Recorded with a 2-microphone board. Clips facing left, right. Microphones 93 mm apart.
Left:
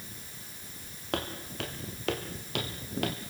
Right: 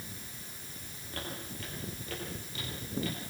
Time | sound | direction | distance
1.1 | footsteps | 85° left | 5.5 m